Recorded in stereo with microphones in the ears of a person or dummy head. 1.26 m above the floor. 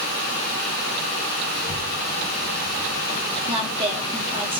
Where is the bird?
No bird in this recording.